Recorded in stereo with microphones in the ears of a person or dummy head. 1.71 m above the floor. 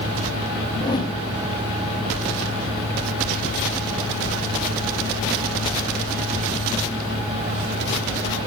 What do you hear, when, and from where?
0.8 s a whoosh: 25° left (ahead or behind), 1.0 m